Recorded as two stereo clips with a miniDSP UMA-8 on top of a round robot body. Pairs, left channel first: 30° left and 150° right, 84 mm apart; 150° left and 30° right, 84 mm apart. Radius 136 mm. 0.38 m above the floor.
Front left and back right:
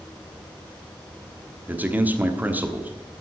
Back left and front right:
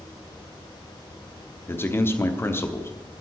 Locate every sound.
1.7 s a man speaking: 165° left, 1.3 m